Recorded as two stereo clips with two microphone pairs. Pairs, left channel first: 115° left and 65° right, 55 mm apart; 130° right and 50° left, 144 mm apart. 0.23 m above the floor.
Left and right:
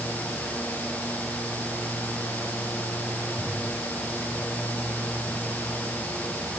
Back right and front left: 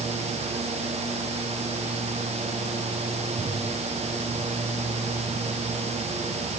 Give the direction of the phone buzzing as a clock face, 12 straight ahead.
I don't hear a phone buzzing.